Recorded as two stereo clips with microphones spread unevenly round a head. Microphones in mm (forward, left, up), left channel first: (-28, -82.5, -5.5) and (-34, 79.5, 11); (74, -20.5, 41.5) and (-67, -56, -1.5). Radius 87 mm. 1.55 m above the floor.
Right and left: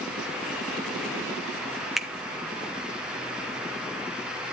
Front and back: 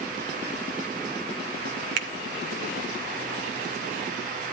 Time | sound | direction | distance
2.0 | a finger snap | straight behind | 0.9 m